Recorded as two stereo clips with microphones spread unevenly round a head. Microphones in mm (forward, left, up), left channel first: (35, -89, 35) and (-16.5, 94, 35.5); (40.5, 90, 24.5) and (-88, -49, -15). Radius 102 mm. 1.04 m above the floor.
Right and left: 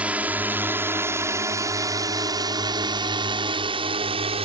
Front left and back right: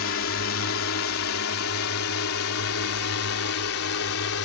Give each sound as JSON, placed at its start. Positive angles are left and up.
{"t": 0.0, "sound": "a drone", "azimuth_deg": 25}